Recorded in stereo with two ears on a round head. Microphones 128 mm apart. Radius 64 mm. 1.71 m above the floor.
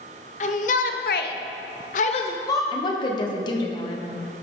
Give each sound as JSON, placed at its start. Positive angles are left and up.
{"t": 0.4, "sound": "a shout", "side_deg": 50, "distance_m": 1.1}
{"t": 2.7, "sound": "a woman speaking", "side_deg": 30, "distance_m": 1.1}